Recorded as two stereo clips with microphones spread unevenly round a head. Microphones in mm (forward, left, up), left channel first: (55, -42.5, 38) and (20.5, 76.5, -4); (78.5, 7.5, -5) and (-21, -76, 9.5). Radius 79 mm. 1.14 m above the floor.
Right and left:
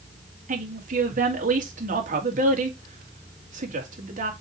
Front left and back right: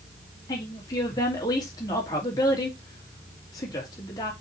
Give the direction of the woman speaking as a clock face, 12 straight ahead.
8 o'clock.